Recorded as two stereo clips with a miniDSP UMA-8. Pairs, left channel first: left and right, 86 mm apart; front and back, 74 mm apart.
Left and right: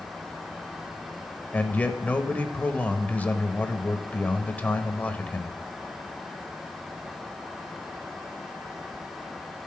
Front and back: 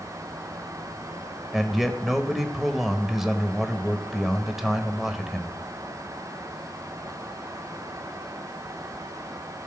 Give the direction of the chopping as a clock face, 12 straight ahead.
I don't hear chopping.